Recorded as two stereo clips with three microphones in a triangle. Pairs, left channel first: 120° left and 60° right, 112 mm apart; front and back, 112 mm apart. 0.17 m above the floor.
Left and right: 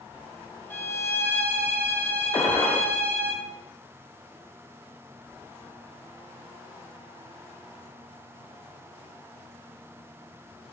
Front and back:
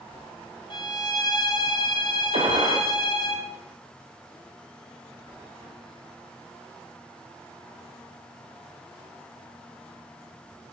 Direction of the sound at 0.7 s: 50° left.